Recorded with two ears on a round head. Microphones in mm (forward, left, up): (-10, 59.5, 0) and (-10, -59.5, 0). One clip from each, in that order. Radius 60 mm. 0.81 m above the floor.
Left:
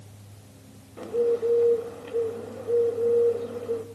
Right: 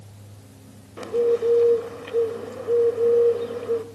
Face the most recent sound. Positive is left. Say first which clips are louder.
# right 3 dB
turn(degrees=-45)  # may be behind; listen again after turning